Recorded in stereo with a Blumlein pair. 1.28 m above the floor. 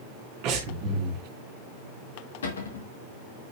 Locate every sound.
0.4 s breathing: 40° right, 2.5 m
2.4 s a cupboard door: 65° left, 2 m